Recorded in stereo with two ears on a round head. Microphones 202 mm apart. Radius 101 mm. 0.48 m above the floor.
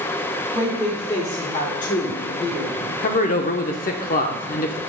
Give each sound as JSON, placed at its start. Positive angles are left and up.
{"t": 0.5, "sound": "a woman speaking", "side_deg": 0, "distance_m": 1.8}
{"t": 3.0, "sound": "a man speaking", "side_deg": 35, "distance_m": 0.8}